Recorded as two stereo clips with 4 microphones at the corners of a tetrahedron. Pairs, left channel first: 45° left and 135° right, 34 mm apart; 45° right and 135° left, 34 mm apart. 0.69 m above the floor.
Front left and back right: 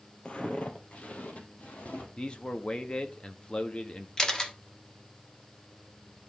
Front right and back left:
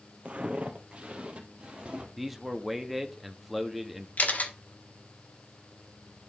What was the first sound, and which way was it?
Footsteps, 95° left.